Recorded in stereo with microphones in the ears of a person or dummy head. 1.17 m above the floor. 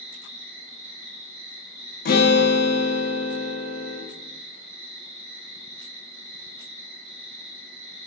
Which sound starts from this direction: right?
An insect, at 0.0 s.